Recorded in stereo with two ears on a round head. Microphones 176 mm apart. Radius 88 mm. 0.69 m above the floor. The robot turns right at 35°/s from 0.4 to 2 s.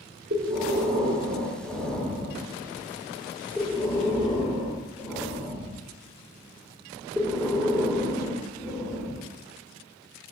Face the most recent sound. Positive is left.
turn(degrees=0)